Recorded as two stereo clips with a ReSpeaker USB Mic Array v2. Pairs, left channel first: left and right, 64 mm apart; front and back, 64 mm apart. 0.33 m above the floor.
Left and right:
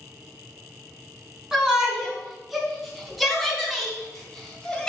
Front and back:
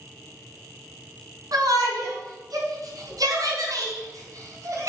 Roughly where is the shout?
Behind.